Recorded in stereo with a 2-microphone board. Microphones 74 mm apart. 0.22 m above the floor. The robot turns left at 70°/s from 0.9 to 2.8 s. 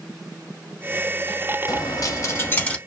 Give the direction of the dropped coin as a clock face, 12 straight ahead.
9 o'clock.